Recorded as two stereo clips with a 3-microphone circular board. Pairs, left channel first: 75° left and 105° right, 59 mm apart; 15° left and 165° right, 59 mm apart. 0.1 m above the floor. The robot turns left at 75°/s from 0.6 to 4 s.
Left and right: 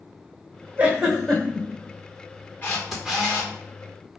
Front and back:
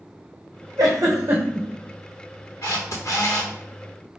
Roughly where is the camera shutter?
Ahead.